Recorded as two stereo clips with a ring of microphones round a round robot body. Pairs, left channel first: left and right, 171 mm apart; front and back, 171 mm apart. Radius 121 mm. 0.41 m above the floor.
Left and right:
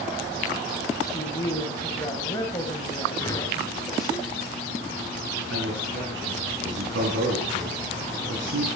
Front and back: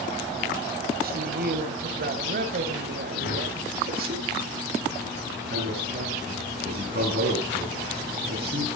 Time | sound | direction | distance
1.0 | a woman speaking | 165° left | 2.5 m
3.1 | a whoosh | 15° left | 4 m
5.5 | a man speaking | 125° right | 5.5 m